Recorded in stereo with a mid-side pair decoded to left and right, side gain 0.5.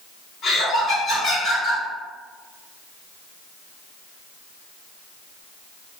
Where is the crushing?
I don't hear crushing.